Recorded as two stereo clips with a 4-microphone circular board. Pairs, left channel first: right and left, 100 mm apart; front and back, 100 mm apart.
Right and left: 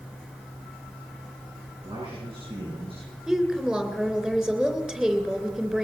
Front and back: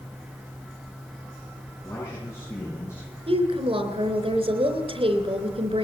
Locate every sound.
1.8 s a man speaking: 65° left, 8.5 m; by 3.2 s 60° left, 9.5 m
3.3 s a woman speaking: 175° left, 3 m